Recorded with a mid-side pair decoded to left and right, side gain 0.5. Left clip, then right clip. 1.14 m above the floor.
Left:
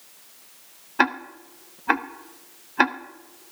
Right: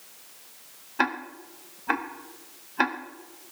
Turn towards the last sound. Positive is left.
turn(degrees=35)